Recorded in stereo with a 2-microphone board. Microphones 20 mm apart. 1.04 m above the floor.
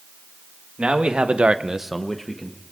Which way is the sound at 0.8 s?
60° right (ahead or behind).